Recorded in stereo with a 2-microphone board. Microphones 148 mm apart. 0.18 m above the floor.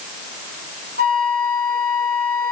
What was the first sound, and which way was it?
A flute, 75° right (ahead or behind).